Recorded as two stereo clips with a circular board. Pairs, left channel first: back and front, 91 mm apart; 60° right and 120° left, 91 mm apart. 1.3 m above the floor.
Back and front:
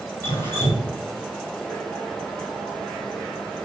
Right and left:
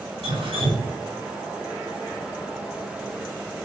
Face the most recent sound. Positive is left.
turn(degrees=120)